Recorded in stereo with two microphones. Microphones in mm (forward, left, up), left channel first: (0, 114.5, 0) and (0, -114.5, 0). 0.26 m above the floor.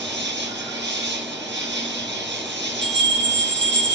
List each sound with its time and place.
0.0 s an insect: 50° right (ahead or behind), 1.6 m
2.8 s a bell: 25° right (ahead or behind), 2 m